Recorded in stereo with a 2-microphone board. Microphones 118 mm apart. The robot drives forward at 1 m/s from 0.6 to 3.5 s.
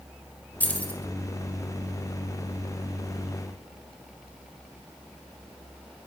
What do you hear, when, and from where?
0.6 s keys jangling: 15° left (ahead or behind), 3 m; by 1.0 s 10° left (ahead or behind), 3.5 m